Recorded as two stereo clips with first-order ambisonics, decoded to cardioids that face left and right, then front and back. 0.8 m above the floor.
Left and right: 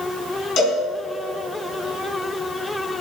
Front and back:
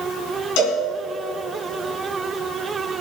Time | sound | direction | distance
0.6 | a cowbell | 30° left | 4.5 m